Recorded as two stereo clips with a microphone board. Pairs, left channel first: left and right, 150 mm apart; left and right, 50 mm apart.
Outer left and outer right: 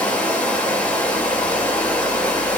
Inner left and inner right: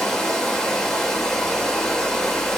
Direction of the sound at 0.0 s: 10° left (ahead or behind).